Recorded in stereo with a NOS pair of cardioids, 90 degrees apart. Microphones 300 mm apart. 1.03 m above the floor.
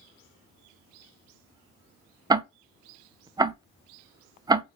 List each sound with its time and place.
2.3 s ticking: 15° right, 0.5 m